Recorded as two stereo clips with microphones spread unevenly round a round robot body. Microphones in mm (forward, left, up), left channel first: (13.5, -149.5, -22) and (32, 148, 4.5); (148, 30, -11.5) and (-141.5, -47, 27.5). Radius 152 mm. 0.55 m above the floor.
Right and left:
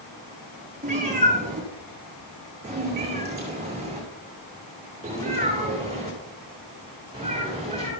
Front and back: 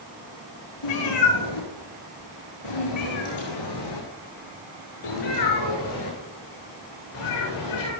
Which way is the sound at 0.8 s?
20° left.